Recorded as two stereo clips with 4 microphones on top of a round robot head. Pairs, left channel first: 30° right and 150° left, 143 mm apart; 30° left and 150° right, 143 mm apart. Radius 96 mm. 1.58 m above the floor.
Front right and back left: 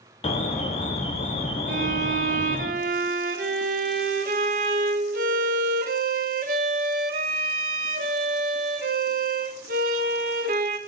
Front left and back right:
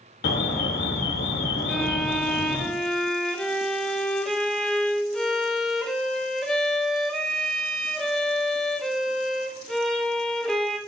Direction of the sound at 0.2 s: 20° left.